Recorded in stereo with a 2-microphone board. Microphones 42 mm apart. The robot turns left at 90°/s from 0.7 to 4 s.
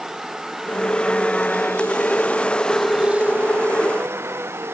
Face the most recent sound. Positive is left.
turn(degrees=-110)